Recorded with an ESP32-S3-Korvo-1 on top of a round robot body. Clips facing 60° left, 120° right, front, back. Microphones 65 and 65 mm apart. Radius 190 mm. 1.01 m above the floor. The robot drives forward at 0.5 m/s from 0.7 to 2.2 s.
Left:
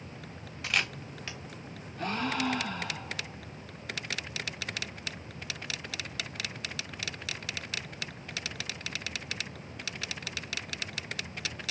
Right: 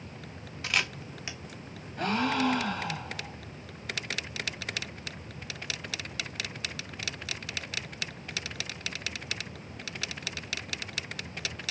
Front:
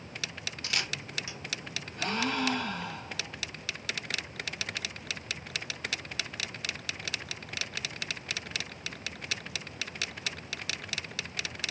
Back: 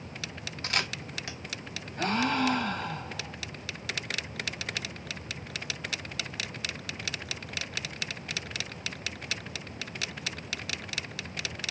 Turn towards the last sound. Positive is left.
turn(degrees=-140)